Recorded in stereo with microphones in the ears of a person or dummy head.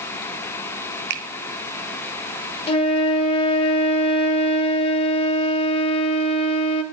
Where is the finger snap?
50° right (ahead or behind), 0.8 m.